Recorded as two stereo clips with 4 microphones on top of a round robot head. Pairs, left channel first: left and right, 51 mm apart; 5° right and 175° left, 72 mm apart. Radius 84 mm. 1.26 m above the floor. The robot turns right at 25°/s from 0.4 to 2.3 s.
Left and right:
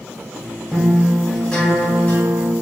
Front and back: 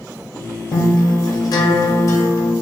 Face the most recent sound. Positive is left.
turn(degrees=35)